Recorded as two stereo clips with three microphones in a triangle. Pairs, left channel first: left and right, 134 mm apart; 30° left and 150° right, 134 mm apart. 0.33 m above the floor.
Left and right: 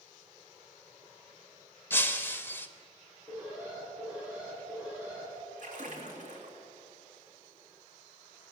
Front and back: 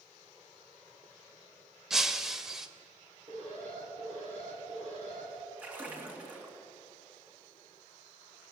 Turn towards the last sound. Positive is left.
turn(degrees=-70)